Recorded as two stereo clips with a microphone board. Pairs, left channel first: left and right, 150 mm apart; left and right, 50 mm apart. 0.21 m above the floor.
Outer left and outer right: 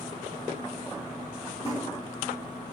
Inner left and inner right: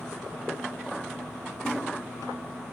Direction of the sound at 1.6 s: 20° left (ahead or behind).